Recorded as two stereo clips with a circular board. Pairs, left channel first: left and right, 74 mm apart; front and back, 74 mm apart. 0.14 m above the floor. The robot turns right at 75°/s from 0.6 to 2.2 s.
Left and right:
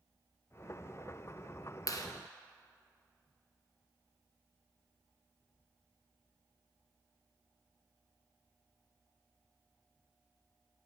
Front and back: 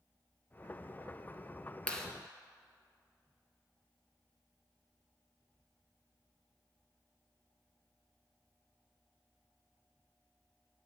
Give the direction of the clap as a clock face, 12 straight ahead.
10 o'clock.